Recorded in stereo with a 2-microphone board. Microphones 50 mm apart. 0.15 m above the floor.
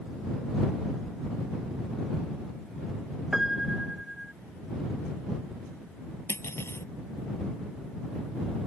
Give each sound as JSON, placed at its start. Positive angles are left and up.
{"t": 3.3, "sound": "a piano", "side_deg": -10}
{"t": 6.3, "sound": "cutlery clinking", "side_deg": 55}